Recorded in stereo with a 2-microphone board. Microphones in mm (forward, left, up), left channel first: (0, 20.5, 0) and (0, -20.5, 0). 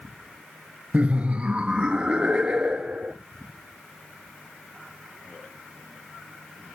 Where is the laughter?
35° right (ahead or behind), 0.7 m; by 3.1 s 20° right (ahead or behind), 1.7 m.